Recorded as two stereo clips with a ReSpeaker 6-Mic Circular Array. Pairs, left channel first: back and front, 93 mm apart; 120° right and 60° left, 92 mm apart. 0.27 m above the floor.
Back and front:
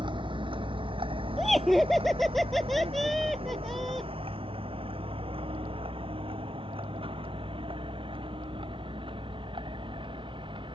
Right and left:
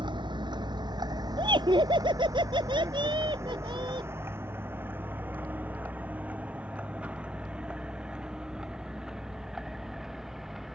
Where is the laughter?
90° left.